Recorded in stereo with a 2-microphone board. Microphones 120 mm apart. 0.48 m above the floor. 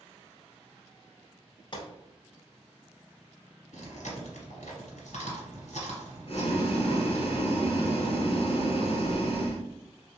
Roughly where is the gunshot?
Left.